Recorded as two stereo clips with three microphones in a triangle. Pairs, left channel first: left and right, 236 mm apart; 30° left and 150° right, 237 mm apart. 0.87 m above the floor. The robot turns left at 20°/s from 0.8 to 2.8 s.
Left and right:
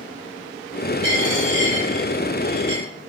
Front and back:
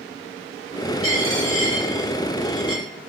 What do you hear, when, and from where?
1.0 s a dropped coin: 30° left, 1.7 m; by 2.8 s 5° right, 1.7 m